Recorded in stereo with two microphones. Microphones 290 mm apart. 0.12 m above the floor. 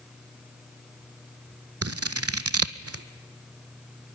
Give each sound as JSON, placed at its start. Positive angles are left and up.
{"t": 1.8, "sound": "scissors", "side_deg": -55, "distance_m": 0.8}